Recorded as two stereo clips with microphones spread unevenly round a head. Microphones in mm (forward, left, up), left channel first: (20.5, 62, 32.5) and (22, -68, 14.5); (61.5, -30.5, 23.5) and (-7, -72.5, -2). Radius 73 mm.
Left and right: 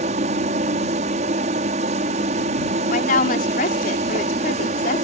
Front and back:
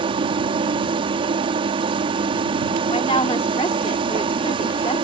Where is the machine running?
135° right.